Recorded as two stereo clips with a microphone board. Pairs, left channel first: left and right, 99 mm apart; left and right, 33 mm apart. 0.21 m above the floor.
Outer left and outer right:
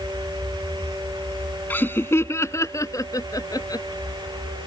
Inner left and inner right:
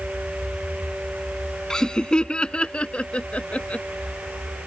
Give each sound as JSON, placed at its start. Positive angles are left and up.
{"t": 1.7, "sound": "laughter", "side_deg": 20}